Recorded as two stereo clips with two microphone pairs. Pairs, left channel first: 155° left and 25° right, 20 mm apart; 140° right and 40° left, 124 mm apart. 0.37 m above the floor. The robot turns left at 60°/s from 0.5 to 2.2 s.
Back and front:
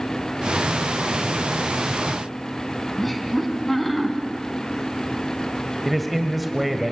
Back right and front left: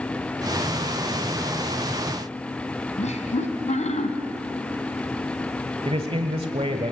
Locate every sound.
3.0 s laughter: 125° right, 3 m
5.8 s a man speaking: 60° left, 1.5 m